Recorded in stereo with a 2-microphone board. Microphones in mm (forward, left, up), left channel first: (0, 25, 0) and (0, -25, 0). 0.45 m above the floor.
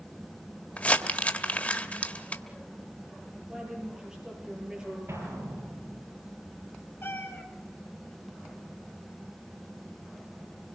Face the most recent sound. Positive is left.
turn(degrees=50)  # may be behind; listen again after turning